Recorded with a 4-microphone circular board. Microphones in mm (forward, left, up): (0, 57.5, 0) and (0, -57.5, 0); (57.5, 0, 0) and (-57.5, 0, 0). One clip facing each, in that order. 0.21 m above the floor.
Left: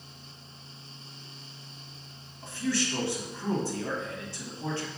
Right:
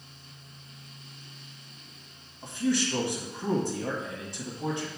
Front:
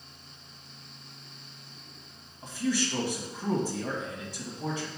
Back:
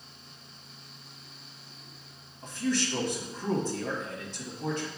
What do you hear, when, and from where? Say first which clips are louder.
2.4 s a man speaking: right 3 dB, even; 60° right, 1.0 m